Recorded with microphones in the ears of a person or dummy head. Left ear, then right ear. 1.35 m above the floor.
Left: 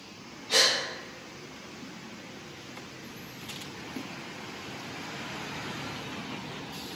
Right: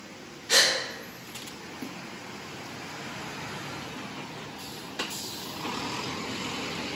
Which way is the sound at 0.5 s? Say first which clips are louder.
Right 2 dB; 55° right (ahead or behind).